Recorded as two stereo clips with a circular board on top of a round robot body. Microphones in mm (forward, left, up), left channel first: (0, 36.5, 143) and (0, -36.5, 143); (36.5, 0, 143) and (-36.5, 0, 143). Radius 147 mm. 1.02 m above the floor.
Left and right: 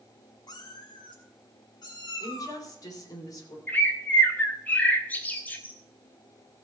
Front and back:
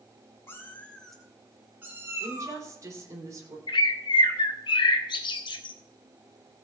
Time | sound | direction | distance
0.5 | a cat meowing | 60° left | 1.9 m
2.2 | a woman speaking | 130° left | 3.5 m
3.7 | a bird | 20° left | 0.7 m